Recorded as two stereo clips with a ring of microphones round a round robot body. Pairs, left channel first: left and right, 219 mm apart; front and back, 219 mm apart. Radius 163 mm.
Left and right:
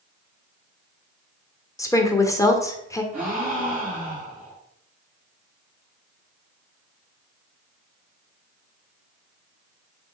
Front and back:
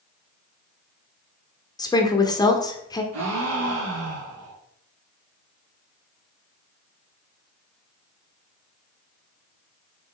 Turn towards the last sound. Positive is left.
turn(degrees=-175)